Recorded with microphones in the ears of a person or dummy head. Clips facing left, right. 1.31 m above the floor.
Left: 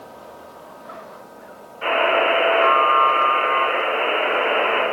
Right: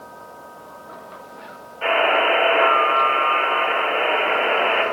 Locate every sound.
1.8 s a buzzer: 35° right (ahead or behind), 1.9 m